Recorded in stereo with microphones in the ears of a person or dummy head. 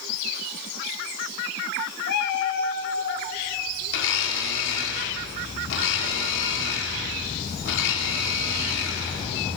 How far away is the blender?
About 4 m.